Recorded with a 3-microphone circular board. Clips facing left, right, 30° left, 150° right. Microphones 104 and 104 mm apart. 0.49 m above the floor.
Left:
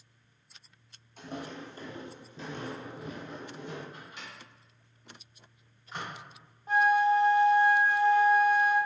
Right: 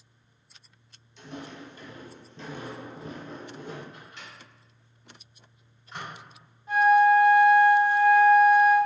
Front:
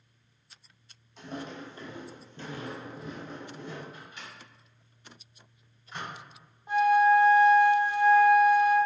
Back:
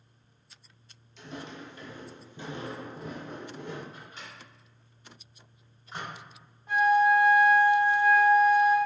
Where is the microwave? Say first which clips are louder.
Even, even; 165° left, 1.7 m.